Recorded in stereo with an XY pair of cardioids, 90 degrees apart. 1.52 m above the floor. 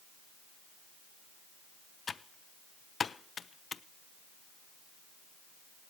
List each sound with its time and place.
2.1 s typing on a keyboard: 45° left, 0.6 m